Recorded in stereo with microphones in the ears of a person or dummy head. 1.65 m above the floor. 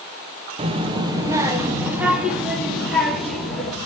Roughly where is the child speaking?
Right.